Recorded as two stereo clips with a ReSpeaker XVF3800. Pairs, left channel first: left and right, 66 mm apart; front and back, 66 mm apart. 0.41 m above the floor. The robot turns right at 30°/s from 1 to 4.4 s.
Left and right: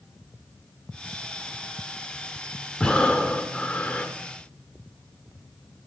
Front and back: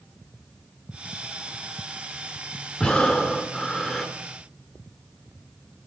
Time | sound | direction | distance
2.8 | breathing | 45° left | 1.1 m